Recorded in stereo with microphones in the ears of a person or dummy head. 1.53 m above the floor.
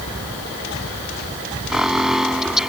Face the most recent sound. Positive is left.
turn(degrees=0)  # may be behind; listen again after turning